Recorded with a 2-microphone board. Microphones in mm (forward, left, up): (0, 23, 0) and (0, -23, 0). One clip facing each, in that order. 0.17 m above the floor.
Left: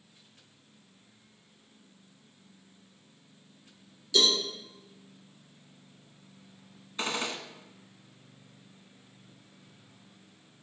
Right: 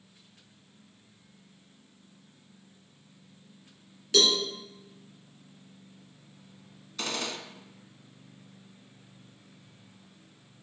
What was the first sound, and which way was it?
A cowbell, 50° right (ahead or behind).